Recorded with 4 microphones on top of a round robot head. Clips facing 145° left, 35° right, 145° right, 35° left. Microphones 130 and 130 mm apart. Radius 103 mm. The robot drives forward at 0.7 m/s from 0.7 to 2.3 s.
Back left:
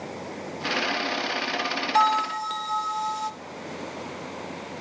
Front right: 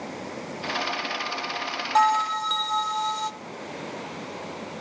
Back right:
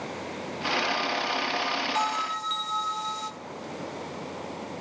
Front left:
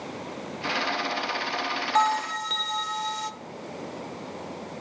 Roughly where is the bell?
Ahead left.